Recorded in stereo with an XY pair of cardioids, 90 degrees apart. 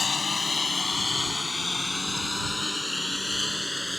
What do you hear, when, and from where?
0.0 s a lawn mower: 35° left; by 4.0 s straight ahead